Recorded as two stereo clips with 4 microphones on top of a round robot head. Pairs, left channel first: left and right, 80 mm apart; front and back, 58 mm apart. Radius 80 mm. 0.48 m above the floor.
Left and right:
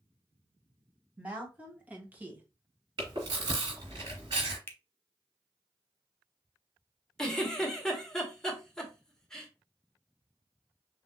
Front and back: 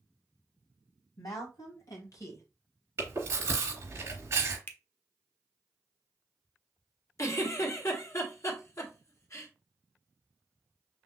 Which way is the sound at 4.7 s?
40° left.